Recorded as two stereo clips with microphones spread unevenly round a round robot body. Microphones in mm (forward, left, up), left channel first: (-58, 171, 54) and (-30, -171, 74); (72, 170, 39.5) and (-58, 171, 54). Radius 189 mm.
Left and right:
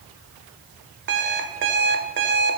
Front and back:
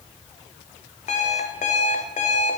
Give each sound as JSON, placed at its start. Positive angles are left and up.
{"t": 1.1, "sound": "an alarm clock", "azimuth_deg": -25, "distance_m": 1.4}